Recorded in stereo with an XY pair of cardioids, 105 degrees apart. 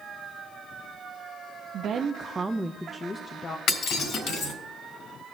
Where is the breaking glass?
70° left, 3.5 m.